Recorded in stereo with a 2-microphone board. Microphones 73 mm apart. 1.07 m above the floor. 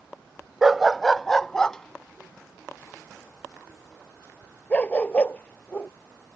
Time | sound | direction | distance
0.6 | a dog barking | 5° right (ahead or behind) | ?